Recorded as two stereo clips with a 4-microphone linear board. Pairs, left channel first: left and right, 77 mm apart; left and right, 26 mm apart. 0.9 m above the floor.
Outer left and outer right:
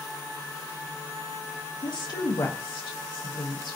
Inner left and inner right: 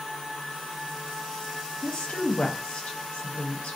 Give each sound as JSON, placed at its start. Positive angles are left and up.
{"t": 1.8, "sound": "a woman speaking", "side_deg": 65, "distance_m": 0.7}